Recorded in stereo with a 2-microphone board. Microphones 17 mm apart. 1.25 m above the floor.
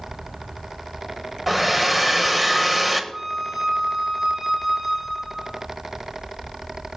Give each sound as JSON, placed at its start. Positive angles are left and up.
{"t": 1.5, "sound": "a hair dryer", "side_deg": -15, "distance_m": 1.1}
{"t": 3.1, "sound": "a flute", "side_deg": -40, "distance_m": 6.5}